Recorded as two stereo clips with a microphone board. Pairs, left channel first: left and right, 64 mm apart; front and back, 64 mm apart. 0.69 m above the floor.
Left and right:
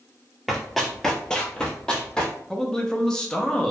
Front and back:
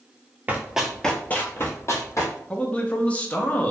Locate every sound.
0.5 s running footsteps: straight behind, 0.7 m; by 2.3 s 15° left, 1.2 m
2.5 s a man speaking: 25° left, 0.5 m